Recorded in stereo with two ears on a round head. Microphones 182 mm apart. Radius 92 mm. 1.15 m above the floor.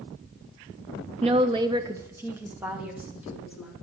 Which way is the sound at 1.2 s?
30° right (ahead or behind).